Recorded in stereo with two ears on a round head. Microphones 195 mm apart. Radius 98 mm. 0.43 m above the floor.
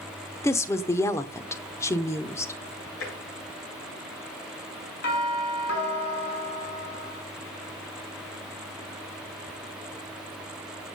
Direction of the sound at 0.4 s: 15° left (ahead or behind).